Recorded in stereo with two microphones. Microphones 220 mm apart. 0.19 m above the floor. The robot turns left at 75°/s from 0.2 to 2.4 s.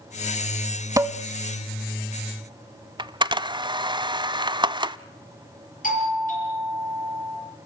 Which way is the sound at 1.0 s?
15° right (ahead or behind).